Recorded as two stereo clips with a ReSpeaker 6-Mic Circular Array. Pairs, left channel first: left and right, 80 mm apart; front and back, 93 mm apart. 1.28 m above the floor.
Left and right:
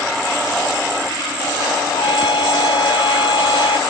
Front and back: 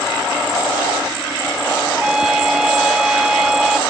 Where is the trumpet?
95° left.